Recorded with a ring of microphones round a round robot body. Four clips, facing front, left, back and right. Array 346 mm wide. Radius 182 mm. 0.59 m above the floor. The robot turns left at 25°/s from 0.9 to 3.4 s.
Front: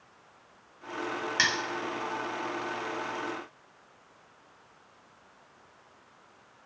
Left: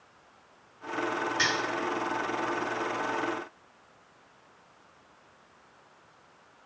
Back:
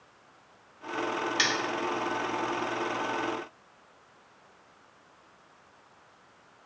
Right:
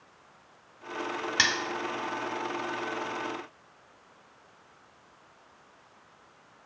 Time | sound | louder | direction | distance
1.4 | cutlery clinking | right 3 dB, front 3 dB | 80° right | 0.6 m